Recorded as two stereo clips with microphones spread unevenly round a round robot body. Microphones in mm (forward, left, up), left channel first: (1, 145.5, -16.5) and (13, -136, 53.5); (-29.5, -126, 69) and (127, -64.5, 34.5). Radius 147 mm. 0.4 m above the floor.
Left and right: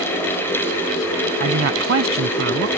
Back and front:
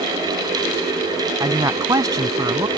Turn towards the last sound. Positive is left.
turn(degrees=-45)